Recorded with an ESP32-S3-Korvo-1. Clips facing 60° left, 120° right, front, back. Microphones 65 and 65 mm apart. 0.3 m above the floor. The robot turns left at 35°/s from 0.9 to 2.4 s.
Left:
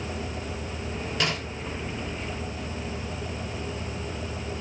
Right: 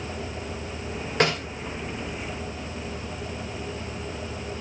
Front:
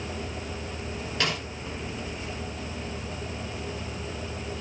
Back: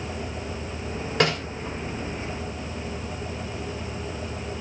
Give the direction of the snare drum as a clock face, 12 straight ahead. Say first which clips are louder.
Right 6 dB, back 7 dB; 6 o'clock.